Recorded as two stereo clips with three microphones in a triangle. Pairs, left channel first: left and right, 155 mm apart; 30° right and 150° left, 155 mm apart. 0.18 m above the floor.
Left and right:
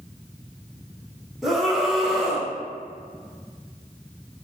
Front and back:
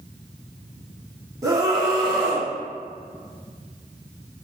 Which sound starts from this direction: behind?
A scream, at 1.4 s.